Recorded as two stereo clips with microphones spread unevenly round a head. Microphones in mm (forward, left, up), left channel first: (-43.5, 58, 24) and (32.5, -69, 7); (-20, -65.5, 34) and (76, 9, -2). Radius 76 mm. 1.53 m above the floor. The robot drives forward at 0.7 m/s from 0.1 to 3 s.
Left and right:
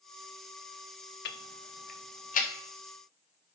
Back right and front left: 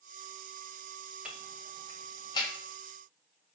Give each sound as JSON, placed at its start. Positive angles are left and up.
{"t": 1.2, "sound": "ticking", "azimuth_deg": 125, "distance_m": 0.7}